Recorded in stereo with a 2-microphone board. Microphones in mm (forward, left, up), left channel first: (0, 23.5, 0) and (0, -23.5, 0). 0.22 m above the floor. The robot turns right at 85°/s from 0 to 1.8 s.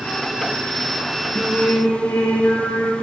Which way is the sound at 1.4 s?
35° left.